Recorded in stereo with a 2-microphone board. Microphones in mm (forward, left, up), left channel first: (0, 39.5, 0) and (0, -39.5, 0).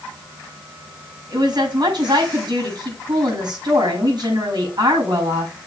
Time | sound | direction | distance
1.3 | a woman speaking | 65° right (ahead or behind) | 6 m